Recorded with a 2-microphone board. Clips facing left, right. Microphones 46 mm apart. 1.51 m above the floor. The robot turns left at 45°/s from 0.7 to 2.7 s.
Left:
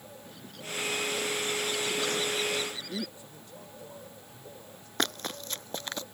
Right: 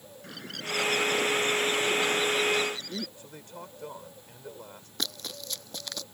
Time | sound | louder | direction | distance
0.2 | a bird | right 7 dB | 100° right | ?
3.2 | a man speaking | right 4 dB | 60° right (ahead or behind) | ?
5.0 | running footsteps | left 5 dB | 45° left (ahead or behind) | ?